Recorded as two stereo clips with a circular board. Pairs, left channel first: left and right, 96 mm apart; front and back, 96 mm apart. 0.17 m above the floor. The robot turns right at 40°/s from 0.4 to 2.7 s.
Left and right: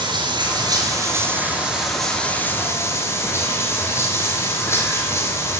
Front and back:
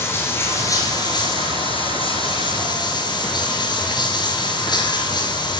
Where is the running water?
60° right, 3 m; by 5.6 s 30° left, 3 m.